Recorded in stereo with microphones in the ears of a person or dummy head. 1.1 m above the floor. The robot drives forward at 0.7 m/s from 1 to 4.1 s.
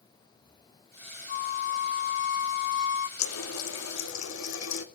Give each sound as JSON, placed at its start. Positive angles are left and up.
{"t": 1.3, "sound": "a flute", "side_deg": 55, "distance_m": 1.9}
{"t": 3.2, "sound": "a running tap", "side_deg": 90, "distance_m": 1.8}